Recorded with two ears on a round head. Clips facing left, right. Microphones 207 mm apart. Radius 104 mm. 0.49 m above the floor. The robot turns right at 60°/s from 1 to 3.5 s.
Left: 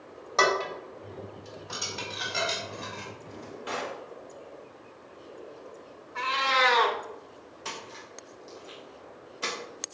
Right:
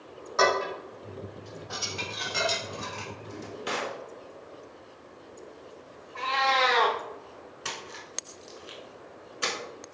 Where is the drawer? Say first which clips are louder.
Right 4 dB; 55° right (ahead or behind), 0.9 m; by 4.0 s 60° right (ahead or behind), 0.9 m.